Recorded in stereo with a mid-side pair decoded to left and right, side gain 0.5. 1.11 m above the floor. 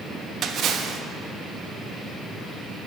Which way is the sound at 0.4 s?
55° right.